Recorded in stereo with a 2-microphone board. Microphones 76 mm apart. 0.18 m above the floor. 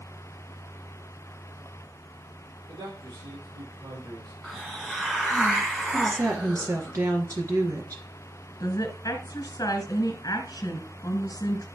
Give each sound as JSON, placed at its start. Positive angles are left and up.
{"t": 2.7, "sound": "a man speaking", "side_deg": -75, "distance_m": 7.5}
{"t": 4.4, "sound": "a hiss", "side_deg": -5, "distance_m": 2.0}
{"t": 5.9, "sound": "a woman speaking", "side_deg": -45, "distance_m": 2.0}
{"t": 8.6, "sound": "a woman speaking", "side_deg": 55, "distance_m": 1.9}